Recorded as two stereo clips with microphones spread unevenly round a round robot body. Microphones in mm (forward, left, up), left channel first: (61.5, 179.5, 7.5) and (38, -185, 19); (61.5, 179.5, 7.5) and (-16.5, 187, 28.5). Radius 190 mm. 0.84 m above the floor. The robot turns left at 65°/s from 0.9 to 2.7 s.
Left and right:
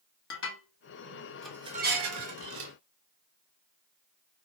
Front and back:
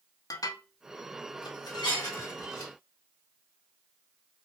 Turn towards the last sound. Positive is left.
turn(degrees=-85)